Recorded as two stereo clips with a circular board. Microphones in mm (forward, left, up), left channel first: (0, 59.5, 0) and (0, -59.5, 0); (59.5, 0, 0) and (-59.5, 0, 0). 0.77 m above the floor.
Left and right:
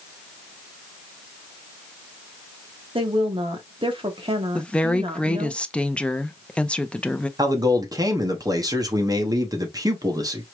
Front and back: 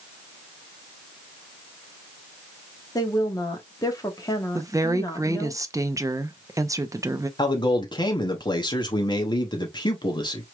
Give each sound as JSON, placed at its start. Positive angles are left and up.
{"t": 3.0, "sound": "a woman speaking", "azimuth_deg": -55, "distance_m": 1.2}
{"t": 4.5, "sound": "a woman speaking", "azimuth_deg": 160, "distance_m": 0.5}
{"t": 7.4, "sound": "a man speaking", "azimuth_deg": -40, "distance_m": 0.9}